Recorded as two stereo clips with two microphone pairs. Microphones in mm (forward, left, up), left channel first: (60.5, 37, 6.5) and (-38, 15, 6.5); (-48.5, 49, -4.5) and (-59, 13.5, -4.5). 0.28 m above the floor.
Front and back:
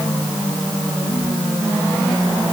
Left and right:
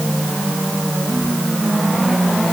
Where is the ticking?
I don't hear ticking.